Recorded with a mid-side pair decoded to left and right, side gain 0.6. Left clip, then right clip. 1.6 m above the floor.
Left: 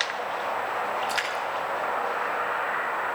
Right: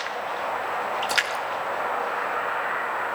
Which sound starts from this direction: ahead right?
A splash, at 1.0 s.